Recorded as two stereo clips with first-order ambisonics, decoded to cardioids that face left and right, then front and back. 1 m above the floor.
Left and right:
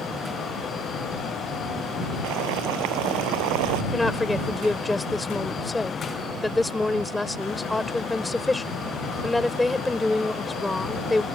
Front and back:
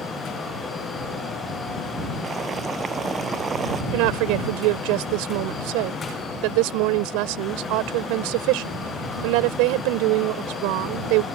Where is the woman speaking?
170° left.